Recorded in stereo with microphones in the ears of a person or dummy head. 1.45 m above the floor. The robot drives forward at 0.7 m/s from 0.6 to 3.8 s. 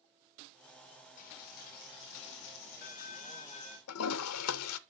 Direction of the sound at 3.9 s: 80° left.